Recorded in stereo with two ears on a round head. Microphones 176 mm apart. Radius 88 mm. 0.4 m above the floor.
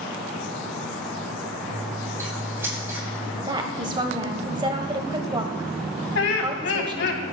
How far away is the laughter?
About 3 m.